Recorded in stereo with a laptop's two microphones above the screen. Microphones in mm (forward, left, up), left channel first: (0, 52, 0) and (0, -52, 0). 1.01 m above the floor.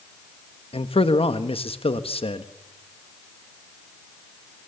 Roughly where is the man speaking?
Left.